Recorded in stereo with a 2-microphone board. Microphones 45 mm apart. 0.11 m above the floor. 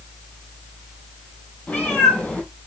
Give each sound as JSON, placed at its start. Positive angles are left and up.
{"t": 1.7, "sound": "a cat meowing", "side_deg": 35, "distance_m": 1.4}